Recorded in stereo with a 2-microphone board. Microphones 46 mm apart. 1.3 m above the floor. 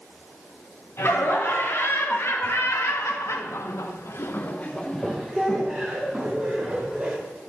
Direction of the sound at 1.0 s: 60° left (ahead or behind).